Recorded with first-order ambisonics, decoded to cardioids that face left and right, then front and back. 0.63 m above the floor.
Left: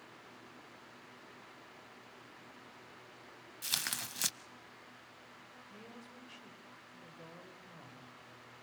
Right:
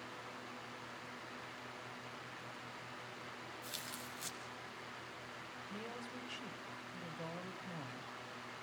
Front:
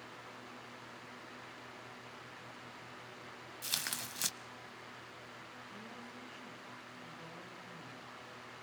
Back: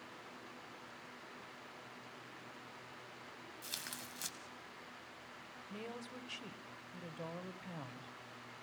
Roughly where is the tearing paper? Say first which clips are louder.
Left 12 dB, front 8 dB; ahead left.